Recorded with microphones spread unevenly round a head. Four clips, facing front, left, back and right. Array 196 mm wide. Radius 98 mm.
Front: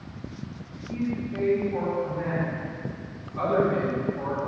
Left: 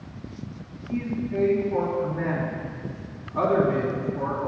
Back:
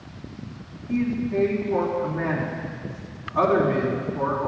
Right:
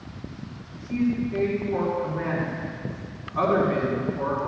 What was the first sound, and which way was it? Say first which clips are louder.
A man speaking: right 3 dB, back 6 dB; 145° left.